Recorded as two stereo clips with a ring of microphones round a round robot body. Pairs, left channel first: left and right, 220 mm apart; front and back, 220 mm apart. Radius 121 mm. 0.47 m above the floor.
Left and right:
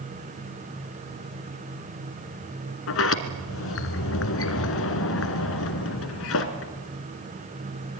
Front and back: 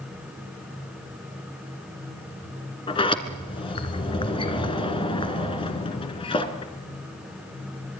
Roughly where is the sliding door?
Ahead left.